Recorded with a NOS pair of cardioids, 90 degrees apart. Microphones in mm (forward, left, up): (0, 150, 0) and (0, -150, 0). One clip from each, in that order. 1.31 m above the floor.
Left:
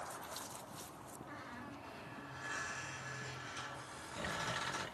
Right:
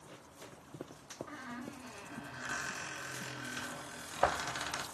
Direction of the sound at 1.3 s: 65° right.